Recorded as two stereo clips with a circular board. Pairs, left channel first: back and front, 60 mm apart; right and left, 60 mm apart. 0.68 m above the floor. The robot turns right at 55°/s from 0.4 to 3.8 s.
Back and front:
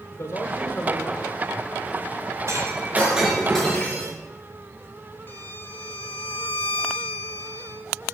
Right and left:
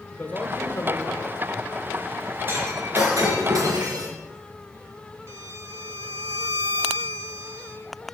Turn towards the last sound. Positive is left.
turn(degrees=125)